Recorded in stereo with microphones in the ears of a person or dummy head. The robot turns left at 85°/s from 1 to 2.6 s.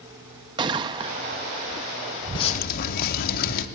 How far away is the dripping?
About 0.6 m.